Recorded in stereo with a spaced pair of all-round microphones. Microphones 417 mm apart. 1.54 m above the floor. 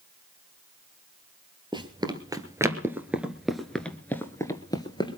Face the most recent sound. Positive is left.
turn(degrees=10)  # may be behind; listen again after turning